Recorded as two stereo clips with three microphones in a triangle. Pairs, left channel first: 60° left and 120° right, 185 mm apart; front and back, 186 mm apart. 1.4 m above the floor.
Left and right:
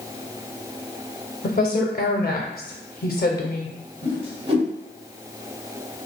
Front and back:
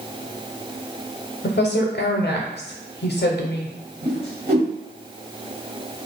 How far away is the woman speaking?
About 0.5 m.